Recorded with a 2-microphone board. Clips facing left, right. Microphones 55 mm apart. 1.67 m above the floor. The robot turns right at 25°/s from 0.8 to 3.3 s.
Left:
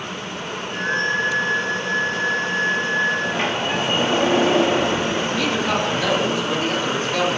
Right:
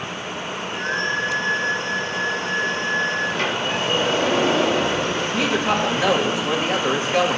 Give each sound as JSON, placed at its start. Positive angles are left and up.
{"t": 3.2, "sound": "a sliding door", "side_deg": 20, "distance_m": 2.5}
{"t": 5.3, "sound": "a woman speaking", "side_deg": -20, "distance_m": 2.5}